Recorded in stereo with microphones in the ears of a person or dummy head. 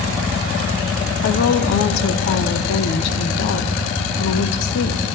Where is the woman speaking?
55° left (ahead or behind), 0.9 m.